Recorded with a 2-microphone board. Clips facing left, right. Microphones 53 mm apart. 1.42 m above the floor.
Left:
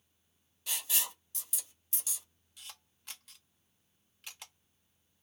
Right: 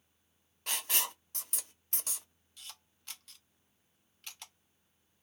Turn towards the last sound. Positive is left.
turn(degrees=5)  # may be behind; listen again after turning